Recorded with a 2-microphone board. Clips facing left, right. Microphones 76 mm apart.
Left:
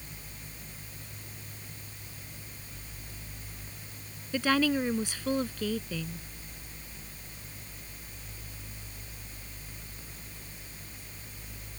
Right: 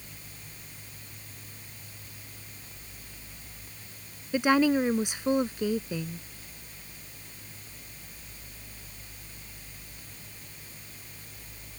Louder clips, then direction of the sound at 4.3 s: Right 4 dB; 20° right (ahead or behind).